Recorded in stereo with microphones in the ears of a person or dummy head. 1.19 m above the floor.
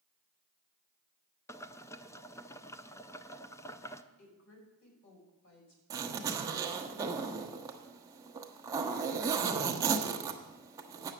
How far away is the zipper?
About 1.1 m.